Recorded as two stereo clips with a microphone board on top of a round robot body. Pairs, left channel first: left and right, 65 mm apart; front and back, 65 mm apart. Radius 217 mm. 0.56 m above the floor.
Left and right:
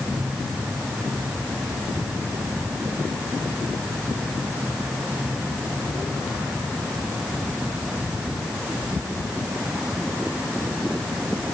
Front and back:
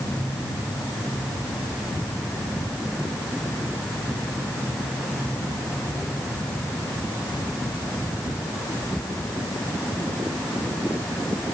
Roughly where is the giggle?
I don't hear a giggle.